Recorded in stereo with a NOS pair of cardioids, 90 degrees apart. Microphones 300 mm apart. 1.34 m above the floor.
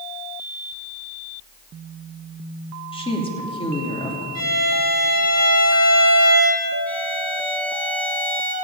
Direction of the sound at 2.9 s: 15° left.